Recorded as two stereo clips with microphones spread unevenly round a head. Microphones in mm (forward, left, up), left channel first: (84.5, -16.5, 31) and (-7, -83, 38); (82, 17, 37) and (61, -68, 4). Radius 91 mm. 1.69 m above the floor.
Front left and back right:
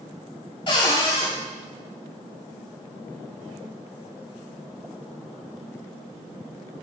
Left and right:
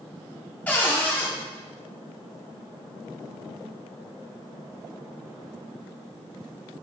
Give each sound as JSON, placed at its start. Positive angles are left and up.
{"t": 0.7, "sound": "a cupboard door", "azimuth_deg": 80, "distance_m": 1.4}